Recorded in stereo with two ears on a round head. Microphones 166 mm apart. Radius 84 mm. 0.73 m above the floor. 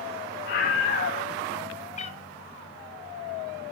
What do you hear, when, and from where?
0.5 s a scream: 50° left (ahead or behind), 1.7 m
2.0 s a cat meowing: 35° left (ahead or behind), 0.7 m